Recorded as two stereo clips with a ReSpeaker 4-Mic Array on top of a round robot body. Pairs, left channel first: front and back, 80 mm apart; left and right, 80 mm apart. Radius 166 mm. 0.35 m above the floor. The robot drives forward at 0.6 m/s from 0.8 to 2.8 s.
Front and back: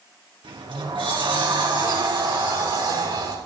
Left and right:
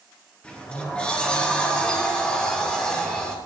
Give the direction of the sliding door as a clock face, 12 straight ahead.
6 o'clock.